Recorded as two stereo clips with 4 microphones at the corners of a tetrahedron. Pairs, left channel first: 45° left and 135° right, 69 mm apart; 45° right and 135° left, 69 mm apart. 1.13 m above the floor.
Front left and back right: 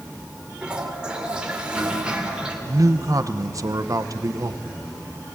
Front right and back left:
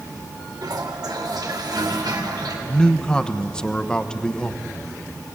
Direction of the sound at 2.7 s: 120° right.